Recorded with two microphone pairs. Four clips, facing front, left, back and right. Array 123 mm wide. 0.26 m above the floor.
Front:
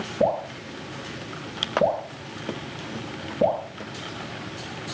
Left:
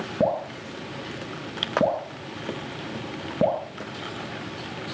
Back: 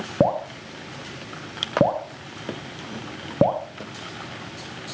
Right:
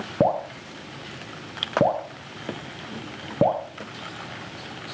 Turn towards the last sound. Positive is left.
turn(degrees=-165)